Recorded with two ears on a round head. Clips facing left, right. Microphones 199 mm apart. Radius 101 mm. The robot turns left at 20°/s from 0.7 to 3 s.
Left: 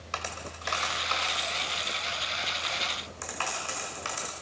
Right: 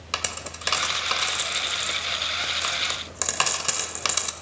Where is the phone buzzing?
No phone buzzing in this recording.